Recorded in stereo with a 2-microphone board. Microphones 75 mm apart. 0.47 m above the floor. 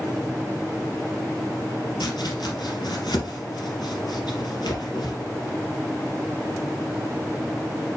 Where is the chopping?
65° left (ahead or behind), 3 m.